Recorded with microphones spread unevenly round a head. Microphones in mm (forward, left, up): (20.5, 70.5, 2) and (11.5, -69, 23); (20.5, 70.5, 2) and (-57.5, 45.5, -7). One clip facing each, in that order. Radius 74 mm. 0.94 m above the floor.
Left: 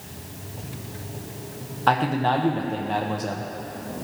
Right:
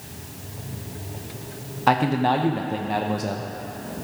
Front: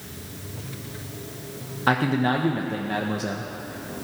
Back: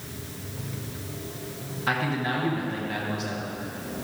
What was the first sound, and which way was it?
A man speaking, 5° right.